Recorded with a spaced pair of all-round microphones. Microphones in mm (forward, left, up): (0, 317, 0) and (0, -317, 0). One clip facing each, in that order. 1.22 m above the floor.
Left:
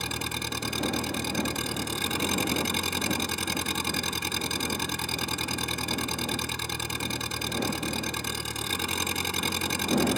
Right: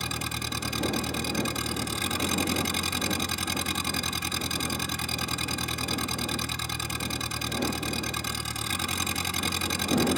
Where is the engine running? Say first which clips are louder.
Left 1 dB; 10° right (ahead or behind).